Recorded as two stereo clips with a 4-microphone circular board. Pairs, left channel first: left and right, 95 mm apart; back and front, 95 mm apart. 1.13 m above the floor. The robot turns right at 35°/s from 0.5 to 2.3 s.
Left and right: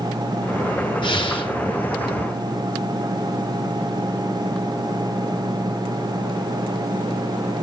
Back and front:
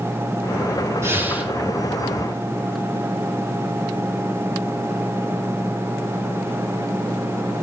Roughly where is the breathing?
Ahead left.